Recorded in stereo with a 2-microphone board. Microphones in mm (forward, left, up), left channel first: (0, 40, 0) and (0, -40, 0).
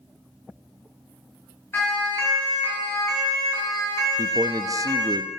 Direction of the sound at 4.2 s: 45° right (ahead or behind).